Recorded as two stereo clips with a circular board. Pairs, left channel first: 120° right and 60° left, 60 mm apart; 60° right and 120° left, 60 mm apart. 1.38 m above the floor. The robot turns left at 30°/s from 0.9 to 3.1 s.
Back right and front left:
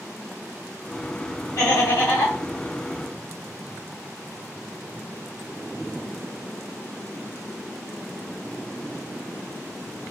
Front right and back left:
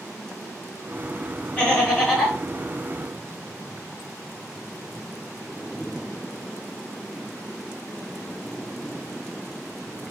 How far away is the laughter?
About 1.6 m.